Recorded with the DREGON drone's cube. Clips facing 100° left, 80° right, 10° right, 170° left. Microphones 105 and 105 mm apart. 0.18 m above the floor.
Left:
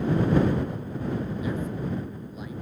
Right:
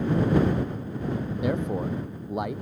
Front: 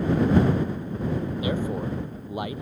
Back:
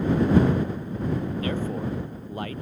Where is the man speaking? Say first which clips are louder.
Right 3 dB, front 1 dB; 85° right.